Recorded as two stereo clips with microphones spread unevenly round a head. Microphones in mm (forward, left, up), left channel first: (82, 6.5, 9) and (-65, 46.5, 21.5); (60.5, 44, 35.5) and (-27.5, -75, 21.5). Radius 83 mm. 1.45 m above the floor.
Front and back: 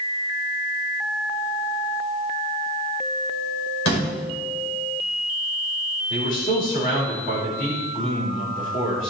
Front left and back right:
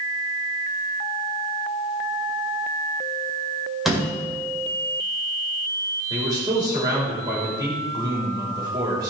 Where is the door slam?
40° right, 5 m.